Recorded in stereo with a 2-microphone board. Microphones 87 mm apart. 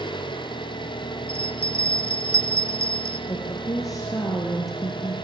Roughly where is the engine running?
Left.